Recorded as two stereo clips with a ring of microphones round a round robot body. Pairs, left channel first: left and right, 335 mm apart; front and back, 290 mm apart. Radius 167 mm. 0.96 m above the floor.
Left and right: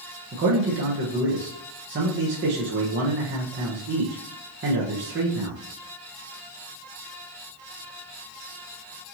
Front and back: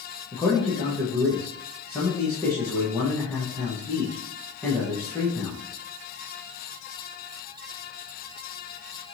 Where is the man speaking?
75° right, 0.8 m.